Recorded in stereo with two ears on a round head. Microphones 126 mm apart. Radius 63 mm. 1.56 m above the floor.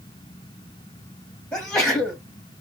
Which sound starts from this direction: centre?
A sneeze, at 1.5 s.